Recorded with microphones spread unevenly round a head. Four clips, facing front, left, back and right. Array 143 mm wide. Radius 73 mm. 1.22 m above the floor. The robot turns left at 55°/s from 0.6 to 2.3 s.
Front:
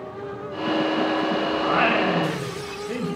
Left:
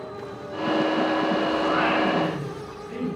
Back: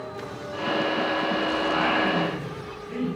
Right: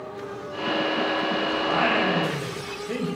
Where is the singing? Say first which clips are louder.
Right 2 dB, front 4 dB; 10° right, 7 m; by 3.1 s 45° right, 7 m.